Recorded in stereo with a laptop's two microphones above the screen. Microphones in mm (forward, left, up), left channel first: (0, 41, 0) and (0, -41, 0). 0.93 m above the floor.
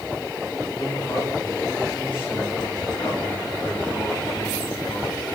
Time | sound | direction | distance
0.8 | a man speaking | 85° left | 6 m